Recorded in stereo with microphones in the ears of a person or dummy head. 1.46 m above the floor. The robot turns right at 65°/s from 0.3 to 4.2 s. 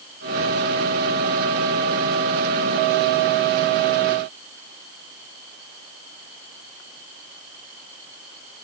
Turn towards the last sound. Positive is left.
No sound to turn to.